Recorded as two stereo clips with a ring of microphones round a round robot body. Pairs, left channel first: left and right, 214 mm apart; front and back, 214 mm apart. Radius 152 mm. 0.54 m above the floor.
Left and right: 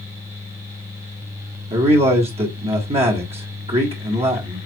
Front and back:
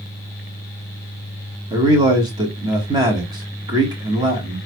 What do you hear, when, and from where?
1.7 s a man speaking: 125° right, 1.3 m